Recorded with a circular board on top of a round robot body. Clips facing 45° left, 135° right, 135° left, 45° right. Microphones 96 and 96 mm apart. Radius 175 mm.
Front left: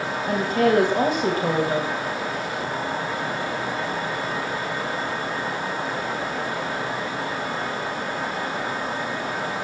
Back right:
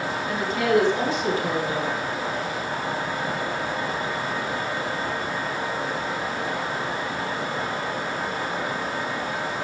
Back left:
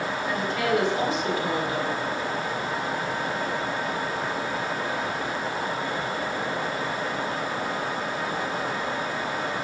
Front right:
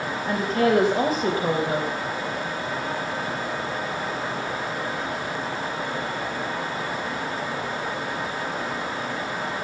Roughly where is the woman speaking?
Ahead.